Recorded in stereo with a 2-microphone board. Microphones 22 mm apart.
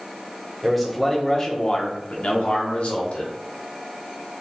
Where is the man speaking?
Centre (ahead or behind), 1.2 m; by 3.3 s 80° left, 1.4 m.